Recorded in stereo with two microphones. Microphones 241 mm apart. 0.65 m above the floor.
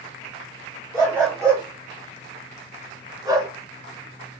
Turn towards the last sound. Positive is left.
turn(degrees=-15)  # may be behind; listen again after turning